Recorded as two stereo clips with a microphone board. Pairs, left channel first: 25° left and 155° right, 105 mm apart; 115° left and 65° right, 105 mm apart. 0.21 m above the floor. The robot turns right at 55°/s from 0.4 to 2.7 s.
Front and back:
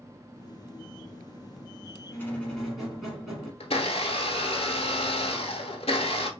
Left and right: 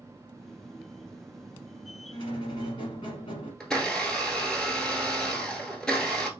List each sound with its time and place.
2.1 s a squeak: 80° left, 1.3 m; by 3.5 s 115° left, 1.3 m
3.6 s a blender: 30° left, 0.7 m